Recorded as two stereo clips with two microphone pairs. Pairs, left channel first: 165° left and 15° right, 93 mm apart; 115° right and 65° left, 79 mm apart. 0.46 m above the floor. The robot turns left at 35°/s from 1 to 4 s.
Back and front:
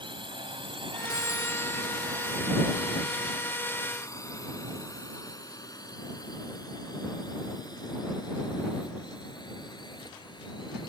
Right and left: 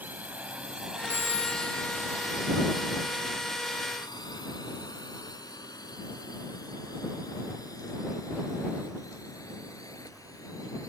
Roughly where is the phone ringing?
Behind left.